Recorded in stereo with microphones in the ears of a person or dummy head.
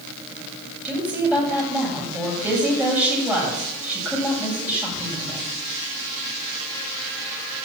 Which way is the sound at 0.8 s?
5° right (ahead or behind).